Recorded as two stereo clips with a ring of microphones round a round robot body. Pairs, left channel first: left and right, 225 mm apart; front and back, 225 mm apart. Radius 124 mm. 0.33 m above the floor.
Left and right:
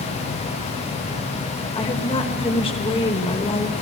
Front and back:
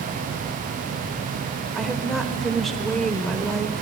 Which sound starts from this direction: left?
A woman speaking, at 1.8 s.